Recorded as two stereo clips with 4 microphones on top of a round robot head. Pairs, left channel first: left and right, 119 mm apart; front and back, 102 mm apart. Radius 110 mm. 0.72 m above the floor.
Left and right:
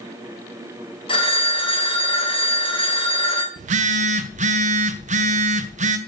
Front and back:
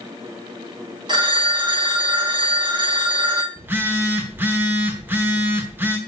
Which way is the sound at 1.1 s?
135° left.